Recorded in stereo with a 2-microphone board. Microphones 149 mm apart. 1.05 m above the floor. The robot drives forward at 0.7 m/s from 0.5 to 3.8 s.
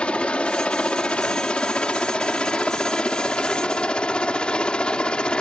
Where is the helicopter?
5° left (ahead or behind).